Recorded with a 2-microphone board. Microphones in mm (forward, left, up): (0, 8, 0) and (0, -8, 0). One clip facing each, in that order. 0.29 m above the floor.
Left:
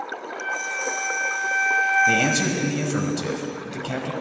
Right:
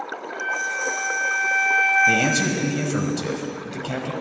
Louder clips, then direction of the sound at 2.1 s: Right 1 dB; 10° left (ahead or behind).